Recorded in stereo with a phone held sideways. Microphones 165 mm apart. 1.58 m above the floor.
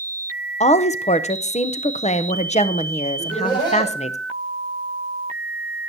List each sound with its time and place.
0.6 s a woman speaking: 40° left (ahead or behind), 0.7 m
3.2 s laughter: 25° left (ahead or behind), 7 m